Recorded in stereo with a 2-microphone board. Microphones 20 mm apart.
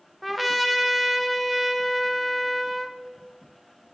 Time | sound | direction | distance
0.2 | a trumpet | centre (ahead or behind) | 0.6 m